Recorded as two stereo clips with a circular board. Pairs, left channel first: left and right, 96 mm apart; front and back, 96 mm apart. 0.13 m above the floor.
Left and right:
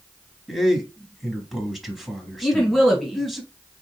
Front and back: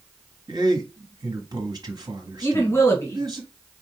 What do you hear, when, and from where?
0.5 s a man speaking: straight behind, 1.3 m
2.4 s a woman speaking: 5° left, 1.7 m